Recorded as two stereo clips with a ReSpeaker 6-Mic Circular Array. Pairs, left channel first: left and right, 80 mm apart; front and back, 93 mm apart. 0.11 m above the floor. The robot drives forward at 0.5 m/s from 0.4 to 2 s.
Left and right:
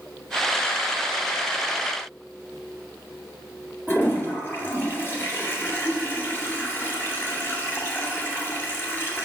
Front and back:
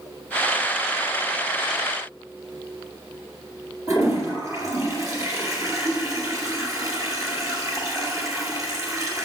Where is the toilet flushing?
140° left, 2.5 m.